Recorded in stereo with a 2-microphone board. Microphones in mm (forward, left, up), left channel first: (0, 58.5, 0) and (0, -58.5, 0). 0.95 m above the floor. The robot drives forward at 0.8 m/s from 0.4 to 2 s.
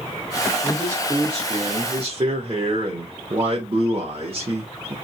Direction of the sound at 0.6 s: 25° right (ahead or behind).